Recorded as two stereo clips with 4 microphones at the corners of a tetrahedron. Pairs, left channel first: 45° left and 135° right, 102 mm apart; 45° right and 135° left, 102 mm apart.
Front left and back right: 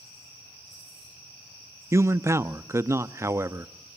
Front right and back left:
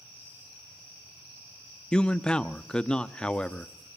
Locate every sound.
1.9 s a man speaking: 115° right, 0.5 m